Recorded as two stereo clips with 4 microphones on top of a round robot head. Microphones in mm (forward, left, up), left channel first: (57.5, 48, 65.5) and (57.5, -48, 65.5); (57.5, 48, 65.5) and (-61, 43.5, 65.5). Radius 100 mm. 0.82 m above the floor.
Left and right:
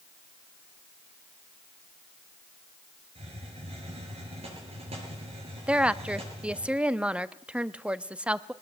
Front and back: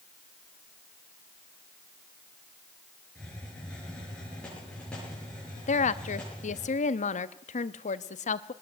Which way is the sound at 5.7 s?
10° right.